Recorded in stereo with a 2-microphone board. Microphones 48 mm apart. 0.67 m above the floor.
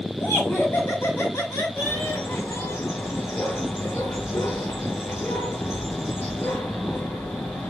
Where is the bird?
80° left, 8.5 m.